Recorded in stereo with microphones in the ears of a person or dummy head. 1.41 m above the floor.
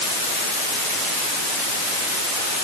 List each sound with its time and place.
Only background noise.